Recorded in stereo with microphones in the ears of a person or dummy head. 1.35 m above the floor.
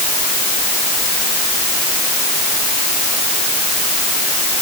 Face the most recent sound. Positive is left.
No sound to turn to.